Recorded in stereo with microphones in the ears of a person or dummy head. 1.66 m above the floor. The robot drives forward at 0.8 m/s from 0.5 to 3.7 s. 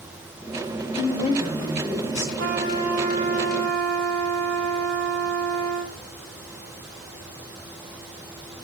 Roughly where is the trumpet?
Right.